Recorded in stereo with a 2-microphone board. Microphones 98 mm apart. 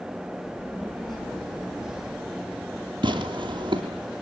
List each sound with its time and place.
0.4 s a child speaking: 5° left (ahead or behind), 9 m
3.0 s tearing paper: 55° right (ahead or behind), 3 m